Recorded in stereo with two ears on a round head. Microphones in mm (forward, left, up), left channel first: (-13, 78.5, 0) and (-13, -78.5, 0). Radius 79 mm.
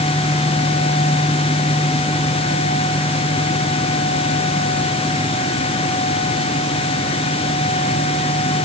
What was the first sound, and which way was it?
Only background noise.